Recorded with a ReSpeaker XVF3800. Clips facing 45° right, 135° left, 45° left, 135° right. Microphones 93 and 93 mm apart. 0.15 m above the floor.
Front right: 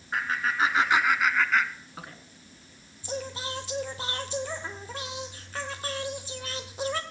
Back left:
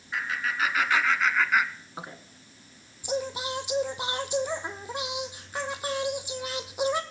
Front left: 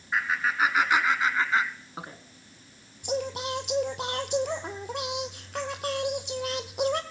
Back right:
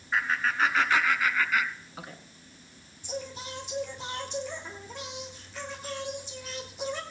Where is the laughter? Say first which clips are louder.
Front right 3 dB, front left 1 dB; 40° right, 1.5 m; by 2.2 s 90° left, 1.4 m.